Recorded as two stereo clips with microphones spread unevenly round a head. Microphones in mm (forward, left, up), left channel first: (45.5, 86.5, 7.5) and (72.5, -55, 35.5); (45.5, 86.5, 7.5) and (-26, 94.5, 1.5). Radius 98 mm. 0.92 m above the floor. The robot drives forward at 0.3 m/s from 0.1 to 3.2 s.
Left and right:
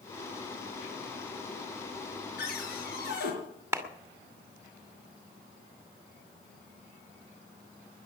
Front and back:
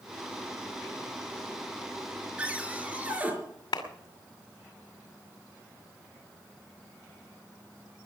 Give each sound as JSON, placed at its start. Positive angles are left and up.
{"t": 2.4, "sound": "a cupboard door", "azimuth_deg": 105, "distance_m": 5.5}
{"t": 3.7, "sound": "a clap", "azimuth_deg": -5, "distance_m": 2.5}